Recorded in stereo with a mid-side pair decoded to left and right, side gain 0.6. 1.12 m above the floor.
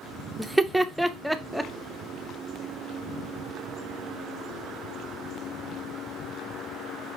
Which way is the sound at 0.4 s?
5° right.